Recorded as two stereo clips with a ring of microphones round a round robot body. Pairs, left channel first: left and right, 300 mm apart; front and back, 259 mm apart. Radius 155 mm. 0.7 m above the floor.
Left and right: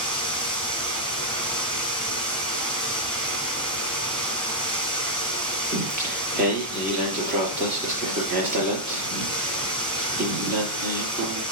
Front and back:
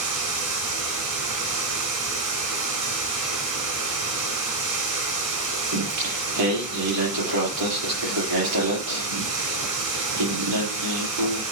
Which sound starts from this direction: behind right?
Singing, at 5.7 s.